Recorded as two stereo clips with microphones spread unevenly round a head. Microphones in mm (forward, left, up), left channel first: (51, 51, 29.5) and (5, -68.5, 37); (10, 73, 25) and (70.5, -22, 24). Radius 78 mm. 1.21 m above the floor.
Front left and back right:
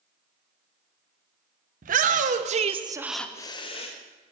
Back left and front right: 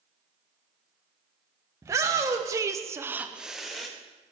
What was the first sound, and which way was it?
A shout, 125° right.